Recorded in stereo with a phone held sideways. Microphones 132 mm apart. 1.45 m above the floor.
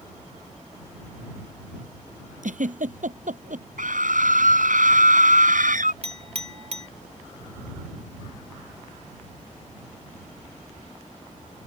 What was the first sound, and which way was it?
A giggle, 75° right (ahead or behind).